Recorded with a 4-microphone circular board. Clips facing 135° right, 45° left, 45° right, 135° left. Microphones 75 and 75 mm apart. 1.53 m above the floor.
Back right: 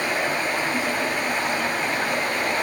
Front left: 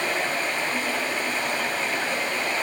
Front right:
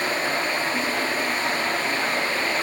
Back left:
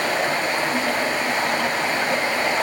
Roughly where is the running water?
Behind left.